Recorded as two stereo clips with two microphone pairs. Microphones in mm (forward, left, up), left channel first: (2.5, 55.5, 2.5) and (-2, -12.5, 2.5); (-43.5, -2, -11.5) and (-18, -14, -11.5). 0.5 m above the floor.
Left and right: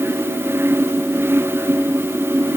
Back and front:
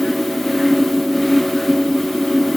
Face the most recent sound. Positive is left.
No sound to turn to.